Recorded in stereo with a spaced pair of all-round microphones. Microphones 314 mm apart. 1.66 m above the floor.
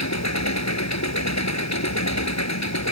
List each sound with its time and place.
0.0 s an engine running: 60° left (ahead or behind)